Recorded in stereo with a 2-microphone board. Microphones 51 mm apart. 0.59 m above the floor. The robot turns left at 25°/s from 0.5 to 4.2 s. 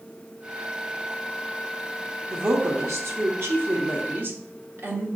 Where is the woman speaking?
75° right, 1.0 m; by 5.1 s 125° right, 1.0 m.